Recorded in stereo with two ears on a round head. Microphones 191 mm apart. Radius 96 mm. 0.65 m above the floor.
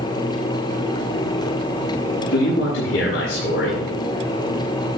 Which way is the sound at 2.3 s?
55° left (ahead or behind).